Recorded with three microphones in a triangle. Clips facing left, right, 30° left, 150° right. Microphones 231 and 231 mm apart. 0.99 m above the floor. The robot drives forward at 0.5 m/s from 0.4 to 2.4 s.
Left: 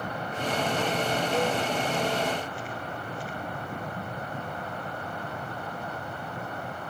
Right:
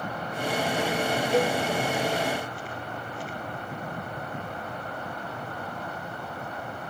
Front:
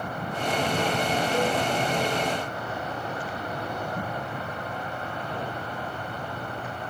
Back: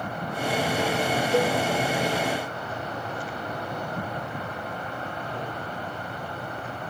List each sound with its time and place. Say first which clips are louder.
1.3 s a cowbell: right 4 dB, back 4 dB; 150° right, 1.4 m; by 1.6 s 155° right, 1.6 m